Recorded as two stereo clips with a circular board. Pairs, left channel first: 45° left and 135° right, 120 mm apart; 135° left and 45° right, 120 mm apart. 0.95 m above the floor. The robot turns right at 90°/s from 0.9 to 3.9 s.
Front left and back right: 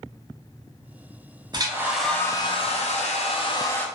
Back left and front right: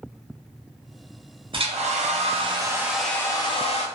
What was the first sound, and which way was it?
A hair dryer, 85° right.